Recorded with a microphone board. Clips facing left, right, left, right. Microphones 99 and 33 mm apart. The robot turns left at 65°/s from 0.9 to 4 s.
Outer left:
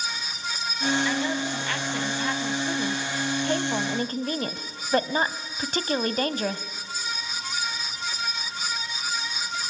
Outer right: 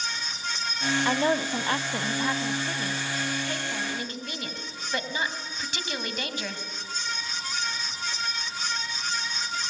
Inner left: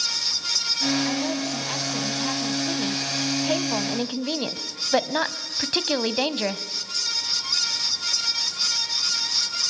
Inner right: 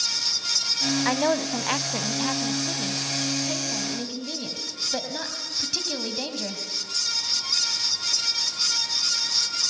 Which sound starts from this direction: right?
A woman speaking, at 1.1 s.